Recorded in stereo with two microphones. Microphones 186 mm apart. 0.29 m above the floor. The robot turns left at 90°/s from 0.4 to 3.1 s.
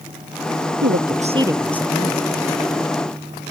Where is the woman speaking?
105° right; by 2.2 s 130° left.